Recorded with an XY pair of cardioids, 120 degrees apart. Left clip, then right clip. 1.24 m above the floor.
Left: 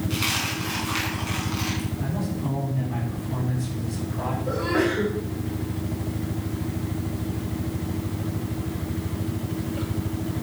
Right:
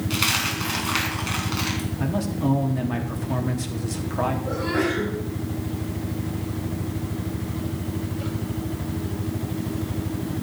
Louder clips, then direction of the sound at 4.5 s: Left 1 dB; 15° left.